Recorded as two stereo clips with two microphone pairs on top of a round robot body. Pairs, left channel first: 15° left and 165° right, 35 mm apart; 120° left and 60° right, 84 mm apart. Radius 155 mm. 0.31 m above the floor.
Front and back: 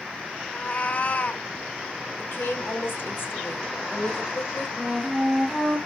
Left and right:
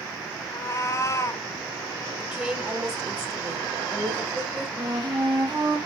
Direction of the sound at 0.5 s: 65° left.